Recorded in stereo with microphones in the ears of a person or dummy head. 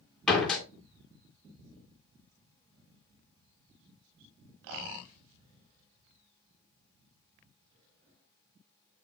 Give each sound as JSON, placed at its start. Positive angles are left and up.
{"t": 0.3, "sound": "a door slam", "side_deg": 5, "distance_m": 3.0}